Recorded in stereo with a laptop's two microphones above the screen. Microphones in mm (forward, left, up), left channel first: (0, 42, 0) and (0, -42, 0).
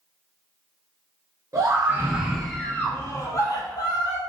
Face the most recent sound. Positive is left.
turn(degrees=55)  # may be behind; listen again after turning